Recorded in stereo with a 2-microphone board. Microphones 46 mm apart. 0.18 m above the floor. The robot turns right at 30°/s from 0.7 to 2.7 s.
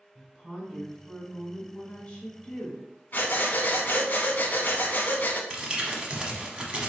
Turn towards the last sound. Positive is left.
turn(degrees=-25)  # may be behind; listen again after turning